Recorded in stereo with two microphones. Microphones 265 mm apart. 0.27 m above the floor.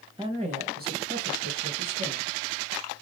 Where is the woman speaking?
20° right (ahead or behind), 0.9 m; by 2.3 s 55° right (ahead or behind), 1.8 m.